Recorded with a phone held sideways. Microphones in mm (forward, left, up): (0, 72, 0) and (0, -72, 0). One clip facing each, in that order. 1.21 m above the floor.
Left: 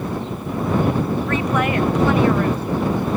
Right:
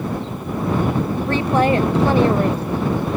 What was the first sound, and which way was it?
A woman speaking, 30° right (ahead or behind).